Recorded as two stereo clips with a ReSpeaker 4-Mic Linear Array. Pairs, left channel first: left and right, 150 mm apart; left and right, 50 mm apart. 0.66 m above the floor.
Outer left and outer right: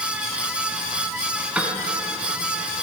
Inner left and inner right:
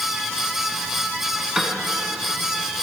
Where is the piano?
10° right (ahead or behind), 1.6 m.